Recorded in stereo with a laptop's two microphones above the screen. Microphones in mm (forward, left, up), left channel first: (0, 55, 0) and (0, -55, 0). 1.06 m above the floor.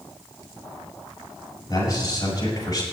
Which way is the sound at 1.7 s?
35° left (ahead or behind).